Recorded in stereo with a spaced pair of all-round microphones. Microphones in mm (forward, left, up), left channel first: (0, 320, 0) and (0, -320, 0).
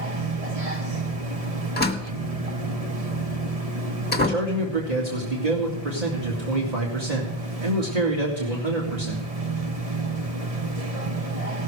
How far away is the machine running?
About 1.3 m.